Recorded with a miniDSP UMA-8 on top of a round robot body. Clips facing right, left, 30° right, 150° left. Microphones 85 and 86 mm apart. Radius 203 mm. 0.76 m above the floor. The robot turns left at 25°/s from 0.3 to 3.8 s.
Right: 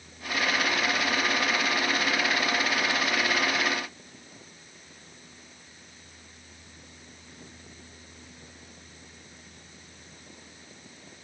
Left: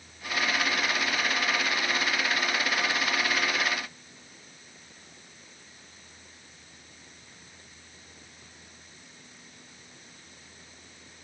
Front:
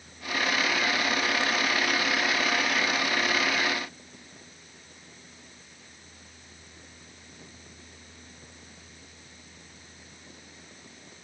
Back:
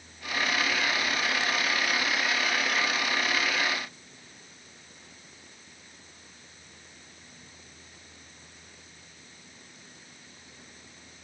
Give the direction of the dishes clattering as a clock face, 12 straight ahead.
I don't hear dishes clattering.